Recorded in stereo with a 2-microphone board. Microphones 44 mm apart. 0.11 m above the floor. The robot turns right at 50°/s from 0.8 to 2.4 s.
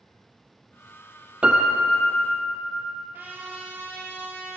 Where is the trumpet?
50° right (ahead or behind), 1.8 m.